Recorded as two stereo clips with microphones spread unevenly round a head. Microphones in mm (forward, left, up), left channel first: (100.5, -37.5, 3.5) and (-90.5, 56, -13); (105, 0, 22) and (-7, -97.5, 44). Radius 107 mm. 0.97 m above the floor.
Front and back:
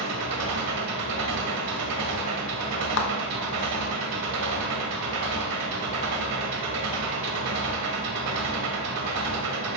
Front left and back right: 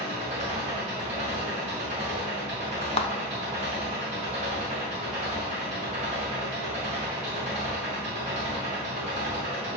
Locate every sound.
0.0 s an engine running: 160° left, 1.9 m
3.0 s a clap: 5° left, 0.8 m